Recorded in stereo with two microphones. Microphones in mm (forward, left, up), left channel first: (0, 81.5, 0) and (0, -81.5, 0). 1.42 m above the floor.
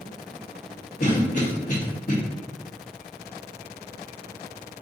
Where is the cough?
50° left (ahead or behind), 1.2 m.